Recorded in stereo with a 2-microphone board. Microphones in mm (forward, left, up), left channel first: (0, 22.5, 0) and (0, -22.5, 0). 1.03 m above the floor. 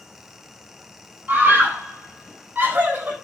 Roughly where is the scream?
Right.